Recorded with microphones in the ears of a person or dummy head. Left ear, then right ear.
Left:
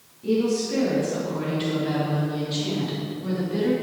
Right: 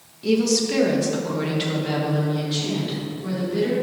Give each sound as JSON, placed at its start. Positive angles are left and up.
{"t": 0.2, "sound": "a woman speaking", "side_deg": -70, "distance_m": 1.6}